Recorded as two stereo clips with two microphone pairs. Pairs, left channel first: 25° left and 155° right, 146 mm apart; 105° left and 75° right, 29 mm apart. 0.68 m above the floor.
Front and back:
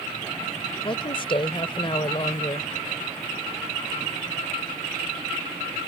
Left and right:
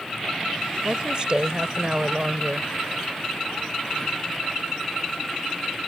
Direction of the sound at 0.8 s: 25° right.